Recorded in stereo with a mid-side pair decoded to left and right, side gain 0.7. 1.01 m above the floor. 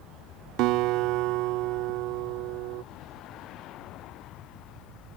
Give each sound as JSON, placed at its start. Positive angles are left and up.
{"t": 0.6, "sound": "a guitar", "azimuth_deg": -65}